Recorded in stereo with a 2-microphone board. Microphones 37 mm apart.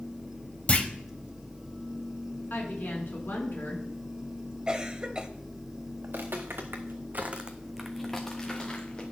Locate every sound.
0.7 s a clunk: 35° left (ahead or behind), 0.9 m
2.5 s a woman speaking: 70° left (ahead or behind), 3 m
4.7 s a cough: 25° right (ahead or behind), 1.0 m
6.0 s footsteps: 75° right (ahead or behind), 2 m; by 9.0 s 25° left (ahead or behind), 3 m